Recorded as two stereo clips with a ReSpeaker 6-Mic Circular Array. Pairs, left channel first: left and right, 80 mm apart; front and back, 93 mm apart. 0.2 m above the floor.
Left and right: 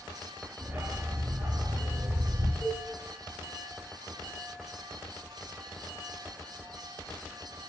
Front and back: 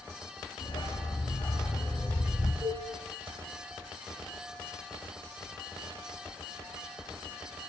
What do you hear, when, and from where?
0.6 s a dog barking: 30° right, 1.9 m; by 2.5 s 70° right, 3.5 m
2.6 s a cowbell: 135° left, 5.5 m